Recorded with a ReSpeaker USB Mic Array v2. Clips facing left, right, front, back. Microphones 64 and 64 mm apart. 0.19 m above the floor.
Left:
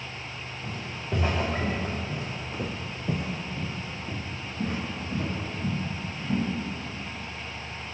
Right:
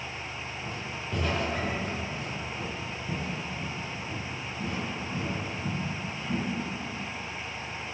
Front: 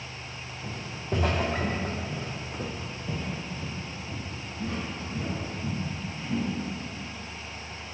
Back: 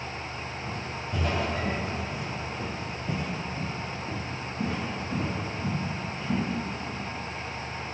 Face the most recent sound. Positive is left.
turn(degrees=150)